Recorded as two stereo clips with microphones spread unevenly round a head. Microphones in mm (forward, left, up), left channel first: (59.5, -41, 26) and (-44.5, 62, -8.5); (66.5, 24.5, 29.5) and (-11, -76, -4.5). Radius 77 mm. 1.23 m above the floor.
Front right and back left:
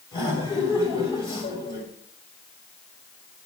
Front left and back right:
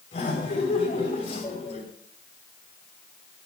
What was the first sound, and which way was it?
Laughter, 10° left.